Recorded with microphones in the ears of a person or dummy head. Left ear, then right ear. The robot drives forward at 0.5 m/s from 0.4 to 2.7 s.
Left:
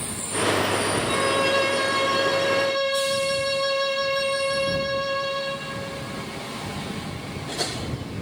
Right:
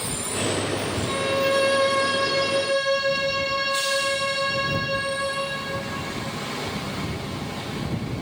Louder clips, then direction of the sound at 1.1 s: Right 1 dB; 20° left (ahead or behind).